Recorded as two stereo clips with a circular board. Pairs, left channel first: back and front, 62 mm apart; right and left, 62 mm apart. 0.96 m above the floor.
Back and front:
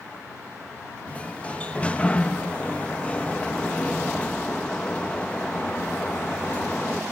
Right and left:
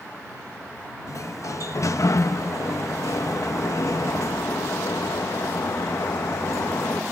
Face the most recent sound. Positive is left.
turn(degrees=-115)